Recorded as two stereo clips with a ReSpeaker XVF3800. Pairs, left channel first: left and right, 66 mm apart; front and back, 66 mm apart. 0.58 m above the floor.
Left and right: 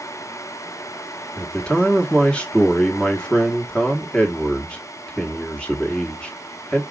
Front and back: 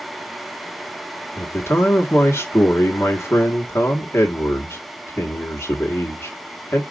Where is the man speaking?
25° left, 1.2 m.